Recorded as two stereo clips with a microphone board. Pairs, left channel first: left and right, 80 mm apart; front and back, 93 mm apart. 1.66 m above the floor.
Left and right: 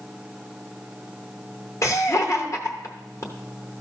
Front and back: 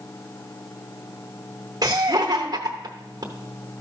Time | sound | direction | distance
1.8 | laughter | 135° left | 0.9 m